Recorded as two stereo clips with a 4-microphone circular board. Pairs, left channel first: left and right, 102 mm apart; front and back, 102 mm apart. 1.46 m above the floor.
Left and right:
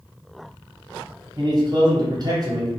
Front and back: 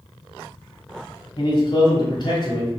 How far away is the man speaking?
About 0.9 m.